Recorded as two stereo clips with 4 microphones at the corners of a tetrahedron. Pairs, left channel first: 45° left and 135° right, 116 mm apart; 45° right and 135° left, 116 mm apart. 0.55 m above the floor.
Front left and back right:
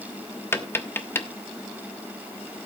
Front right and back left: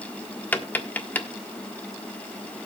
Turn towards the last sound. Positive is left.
turn(degrees=5)